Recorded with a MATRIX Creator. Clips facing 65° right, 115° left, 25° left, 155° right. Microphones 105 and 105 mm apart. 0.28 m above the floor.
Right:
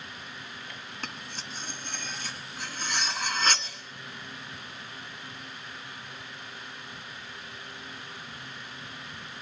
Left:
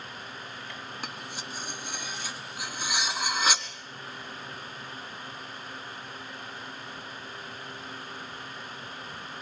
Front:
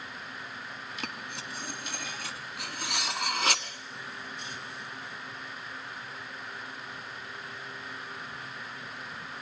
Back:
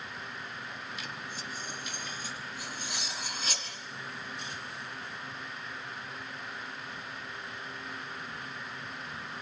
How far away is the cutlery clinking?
About 1.5 m.